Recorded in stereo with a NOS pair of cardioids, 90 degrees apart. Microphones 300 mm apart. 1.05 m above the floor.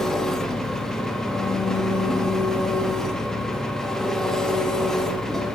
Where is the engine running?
Straight ahead, 1.1 m.